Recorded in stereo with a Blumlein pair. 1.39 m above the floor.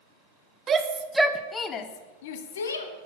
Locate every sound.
0.7 s a shout: 20° right, 1.5 m; by 2.9 s 70° left, 1.8 m